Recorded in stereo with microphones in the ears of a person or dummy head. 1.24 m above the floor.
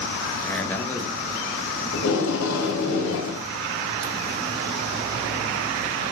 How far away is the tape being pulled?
About 2.5 m.